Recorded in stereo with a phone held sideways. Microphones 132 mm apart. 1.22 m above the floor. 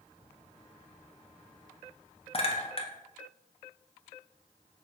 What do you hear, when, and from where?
2.3 s a clink: 40° left (ahead or behind), 0.5 m